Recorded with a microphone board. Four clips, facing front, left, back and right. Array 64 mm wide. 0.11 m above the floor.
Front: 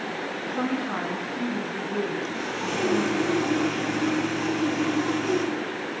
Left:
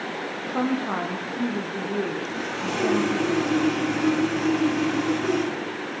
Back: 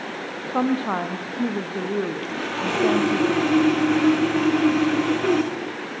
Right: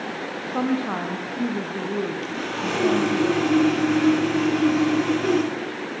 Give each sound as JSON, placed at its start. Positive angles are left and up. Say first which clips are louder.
{"t": 0.5, "sound": "a woman speaking", "louder": "right 1 dB, back 6 dB", "azimuth_deg": -175, "distance_m": 4.0}
{"t": 2.2, "sound": "sawing", "louder": "right 1 dB, back 3 dB", "azimuth_deg": -165, "distance_m": 6.0}